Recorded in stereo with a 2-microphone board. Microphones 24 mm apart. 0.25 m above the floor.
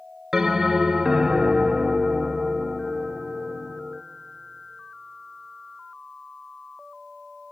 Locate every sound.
0.3 s a bell: 20° right (ahead or behind), 0.6 m